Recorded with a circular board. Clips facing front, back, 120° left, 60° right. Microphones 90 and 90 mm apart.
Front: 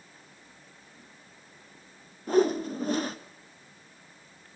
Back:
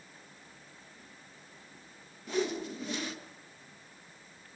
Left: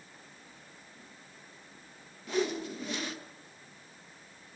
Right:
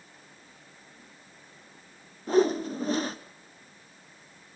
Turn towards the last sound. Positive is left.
turn(degrees=-25)